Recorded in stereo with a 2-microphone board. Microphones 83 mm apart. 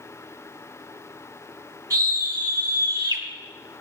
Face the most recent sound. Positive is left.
turn(degrees=-55)  # may be behind; listen again after turning